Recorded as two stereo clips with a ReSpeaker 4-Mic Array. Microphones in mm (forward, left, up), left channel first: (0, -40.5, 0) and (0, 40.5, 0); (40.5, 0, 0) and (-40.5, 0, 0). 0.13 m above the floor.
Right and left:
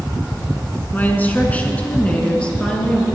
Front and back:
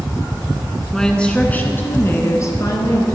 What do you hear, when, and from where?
0.9 s a woman speaking: 75° right, 1.3 m; by 3.0 s 15° right, 1.8 m